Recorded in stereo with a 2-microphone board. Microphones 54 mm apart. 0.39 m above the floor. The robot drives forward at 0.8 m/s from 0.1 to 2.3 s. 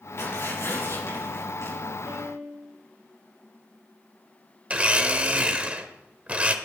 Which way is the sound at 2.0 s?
55° right (ahead or behind).